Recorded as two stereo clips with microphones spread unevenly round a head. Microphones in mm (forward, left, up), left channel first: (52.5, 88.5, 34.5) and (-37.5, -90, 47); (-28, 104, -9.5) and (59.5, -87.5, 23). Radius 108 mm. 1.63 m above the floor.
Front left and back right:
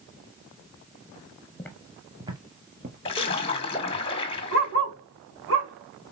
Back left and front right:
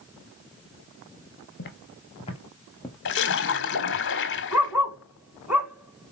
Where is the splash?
125° left, 1.5 m.